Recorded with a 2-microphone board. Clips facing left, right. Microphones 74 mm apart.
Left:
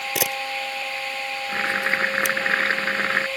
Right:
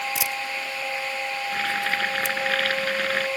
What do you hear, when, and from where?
0.1 s a camera shutter: 70° left (ahead or behind)
1.5 s boiling: 30° left (ahead or behind)